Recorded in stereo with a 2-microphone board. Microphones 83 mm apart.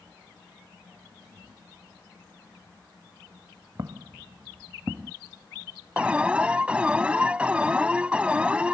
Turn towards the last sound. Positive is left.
turn(degrees=-15)  # may be behind; listen again after turning